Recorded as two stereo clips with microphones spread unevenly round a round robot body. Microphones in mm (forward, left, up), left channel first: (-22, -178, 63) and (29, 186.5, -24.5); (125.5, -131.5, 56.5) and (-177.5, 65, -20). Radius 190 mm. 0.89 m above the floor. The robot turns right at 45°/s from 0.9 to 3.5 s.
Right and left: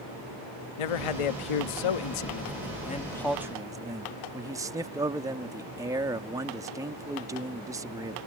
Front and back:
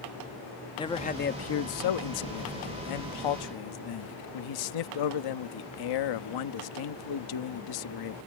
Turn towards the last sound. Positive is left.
turn(degrees=5)